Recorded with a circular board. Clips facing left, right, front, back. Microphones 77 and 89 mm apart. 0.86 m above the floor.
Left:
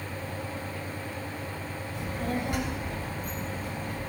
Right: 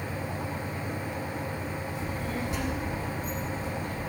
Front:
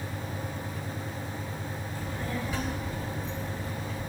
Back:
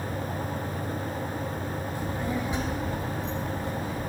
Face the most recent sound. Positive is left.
turn(degrees=110)